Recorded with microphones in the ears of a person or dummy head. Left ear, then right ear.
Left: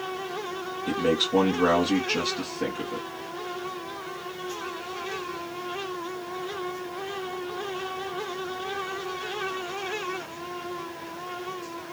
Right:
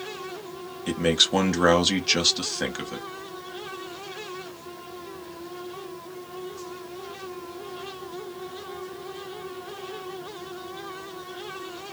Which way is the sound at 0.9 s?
40° right (ahead or behind).